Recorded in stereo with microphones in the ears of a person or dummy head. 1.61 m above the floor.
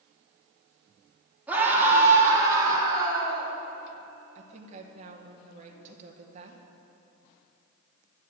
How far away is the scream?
About 3.5 m.